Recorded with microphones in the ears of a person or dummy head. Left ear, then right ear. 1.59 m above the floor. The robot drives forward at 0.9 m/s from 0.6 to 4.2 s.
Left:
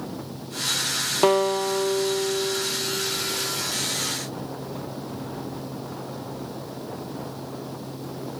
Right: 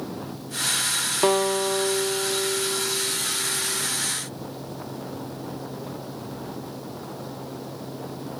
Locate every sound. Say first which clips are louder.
1.2 s a guitar: left 2 dB; 5° left (ahead or behind), 0.6 m; by 3.9 s centre (ahead or behind), 3 m